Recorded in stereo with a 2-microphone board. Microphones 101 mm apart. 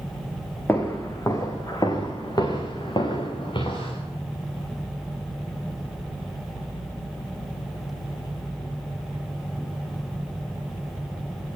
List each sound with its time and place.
0.7 s footsteps: 20° left (ahead or behind), 4 m; by 4.0 s 55° left (ahead or behind), 8 m